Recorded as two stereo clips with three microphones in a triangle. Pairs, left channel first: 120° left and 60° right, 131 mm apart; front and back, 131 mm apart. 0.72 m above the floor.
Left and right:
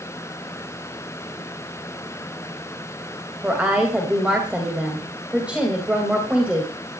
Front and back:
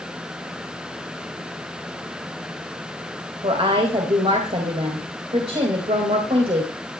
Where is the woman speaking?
140° right, 3 m.